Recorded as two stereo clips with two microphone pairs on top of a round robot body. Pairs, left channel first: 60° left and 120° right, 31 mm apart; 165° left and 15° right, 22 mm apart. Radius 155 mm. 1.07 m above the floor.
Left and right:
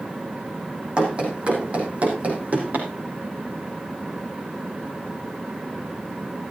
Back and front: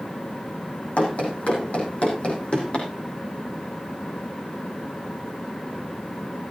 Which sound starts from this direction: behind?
Running footsteps, at 1.0 s.